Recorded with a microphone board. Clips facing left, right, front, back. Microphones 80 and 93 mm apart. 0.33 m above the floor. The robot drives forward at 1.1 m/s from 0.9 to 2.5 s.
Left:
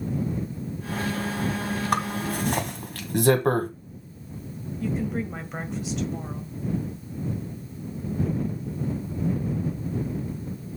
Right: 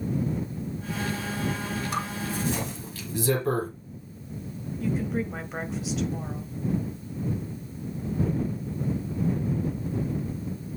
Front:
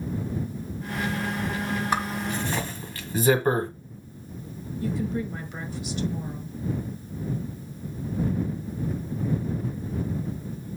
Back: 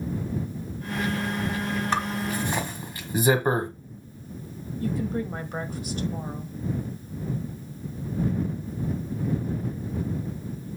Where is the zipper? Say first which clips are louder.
Left 4 dB, back 1 dB; 80° left, 1.4 m; by 3.7 s 110° left, 1.4 m.